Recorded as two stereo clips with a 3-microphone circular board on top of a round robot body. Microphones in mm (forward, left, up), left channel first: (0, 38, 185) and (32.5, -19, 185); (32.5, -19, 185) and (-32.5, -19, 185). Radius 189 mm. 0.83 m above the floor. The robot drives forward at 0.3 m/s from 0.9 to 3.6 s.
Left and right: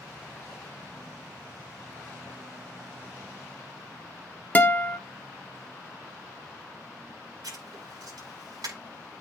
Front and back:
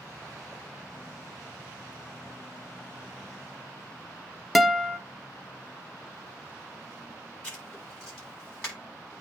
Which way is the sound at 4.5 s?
90° left.